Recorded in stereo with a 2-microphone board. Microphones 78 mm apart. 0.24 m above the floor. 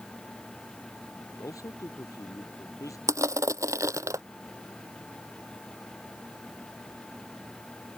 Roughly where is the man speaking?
Left.